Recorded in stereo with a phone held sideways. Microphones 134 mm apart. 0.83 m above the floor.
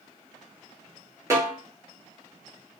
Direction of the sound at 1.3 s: 20° right (ahead or behind).